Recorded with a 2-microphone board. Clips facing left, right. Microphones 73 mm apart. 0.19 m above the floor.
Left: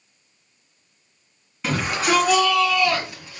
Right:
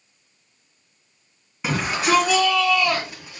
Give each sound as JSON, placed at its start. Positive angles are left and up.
{"t": 1.6, "sound": "a shout", "side_deg": -15, "distance_m": 2.0}